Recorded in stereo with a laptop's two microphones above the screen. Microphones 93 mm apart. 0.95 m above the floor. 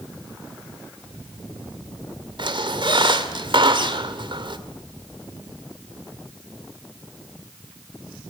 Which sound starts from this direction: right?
A squeak, at 2.4 s.